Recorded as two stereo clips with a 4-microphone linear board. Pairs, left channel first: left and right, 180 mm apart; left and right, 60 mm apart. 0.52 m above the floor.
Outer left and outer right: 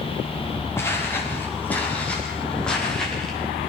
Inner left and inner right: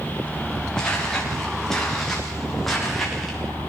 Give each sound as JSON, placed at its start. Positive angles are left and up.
{"t": 0.8, "sound": "footsteps", "side_deg": 15, "distance_m": 7.0}